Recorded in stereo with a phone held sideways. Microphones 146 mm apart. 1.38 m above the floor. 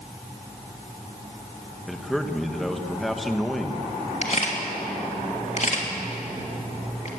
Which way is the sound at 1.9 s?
Centre (ahead or behind).